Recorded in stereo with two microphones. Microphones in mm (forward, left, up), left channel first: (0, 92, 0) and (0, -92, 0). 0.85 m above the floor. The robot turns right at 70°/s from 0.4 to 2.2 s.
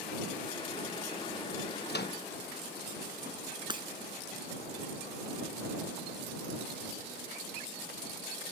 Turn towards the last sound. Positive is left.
turn(degrees=-25)  # may be behind; listen again after turning